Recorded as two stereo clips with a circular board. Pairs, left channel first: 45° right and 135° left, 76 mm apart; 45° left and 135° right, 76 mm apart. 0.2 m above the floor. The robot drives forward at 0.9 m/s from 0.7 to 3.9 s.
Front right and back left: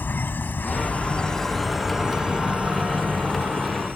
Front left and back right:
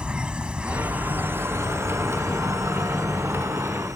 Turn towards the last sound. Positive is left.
turn(degrees=-165)